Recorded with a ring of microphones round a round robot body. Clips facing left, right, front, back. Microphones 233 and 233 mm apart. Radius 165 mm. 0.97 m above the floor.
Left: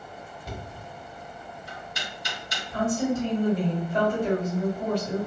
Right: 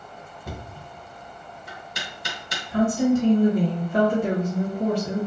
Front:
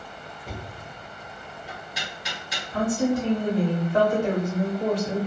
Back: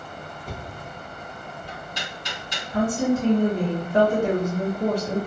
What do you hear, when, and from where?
0.5 s knocking: 80° right, 0.6 m
2.7 s a woman speaking: 95° right, 0.7 m